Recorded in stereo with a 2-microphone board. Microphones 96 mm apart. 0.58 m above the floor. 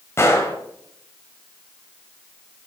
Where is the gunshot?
30° left (ahead or behind), 1.4 m.